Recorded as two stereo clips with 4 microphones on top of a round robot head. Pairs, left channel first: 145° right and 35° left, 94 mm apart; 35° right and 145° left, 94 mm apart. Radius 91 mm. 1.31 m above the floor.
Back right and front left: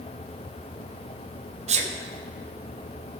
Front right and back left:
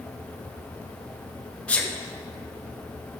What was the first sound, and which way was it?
A sneeze, 40° left.